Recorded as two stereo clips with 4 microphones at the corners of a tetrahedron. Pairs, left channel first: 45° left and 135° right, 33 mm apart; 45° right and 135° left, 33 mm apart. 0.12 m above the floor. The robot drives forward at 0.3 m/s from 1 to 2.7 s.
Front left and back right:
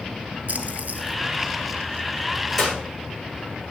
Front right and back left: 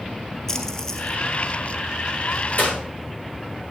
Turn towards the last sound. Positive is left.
turn(degrees=-40)